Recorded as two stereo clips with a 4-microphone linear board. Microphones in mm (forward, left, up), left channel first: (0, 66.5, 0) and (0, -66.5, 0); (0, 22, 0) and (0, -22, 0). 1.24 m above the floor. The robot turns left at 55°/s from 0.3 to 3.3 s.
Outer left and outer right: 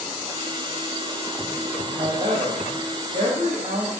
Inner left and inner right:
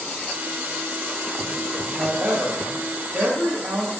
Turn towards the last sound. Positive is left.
turn(degrees=-125)